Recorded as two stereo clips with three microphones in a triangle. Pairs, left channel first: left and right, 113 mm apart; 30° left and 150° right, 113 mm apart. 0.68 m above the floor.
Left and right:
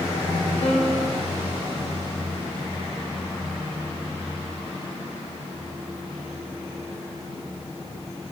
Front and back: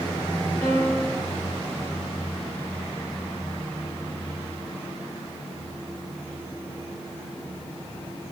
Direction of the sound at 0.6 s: 100° left.